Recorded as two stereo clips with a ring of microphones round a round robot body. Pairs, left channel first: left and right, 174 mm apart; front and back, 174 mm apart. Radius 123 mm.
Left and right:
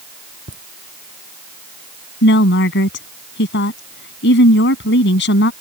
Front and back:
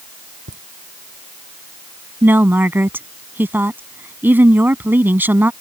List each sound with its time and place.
0.5 s laughter: 135° right
2.2 s a woman speaking: 100° left